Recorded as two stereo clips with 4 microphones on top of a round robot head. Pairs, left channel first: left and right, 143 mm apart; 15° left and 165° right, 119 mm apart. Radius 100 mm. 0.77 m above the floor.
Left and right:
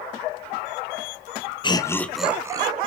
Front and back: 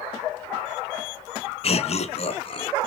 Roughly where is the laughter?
Ahead left.